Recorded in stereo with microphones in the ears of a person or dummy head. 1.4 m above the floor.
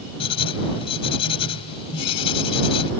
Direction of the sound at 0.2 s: 30° left (ahead or behind).